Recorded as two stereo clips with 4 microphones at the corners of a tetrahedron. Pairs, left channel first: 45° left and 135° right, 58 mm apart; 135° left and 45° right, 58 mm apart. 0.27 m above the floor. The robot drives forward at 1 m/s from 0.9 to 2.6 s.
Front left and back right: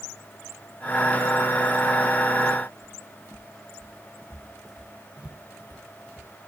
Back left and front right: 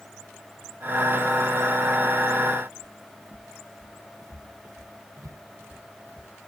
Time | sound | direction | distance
2.8 | footsteps | 15° left | 1.6 m